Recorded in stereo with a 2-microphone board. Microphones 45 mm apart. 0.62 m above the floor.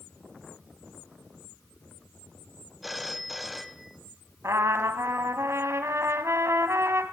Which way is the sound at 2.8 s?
Centre (ahead or behind).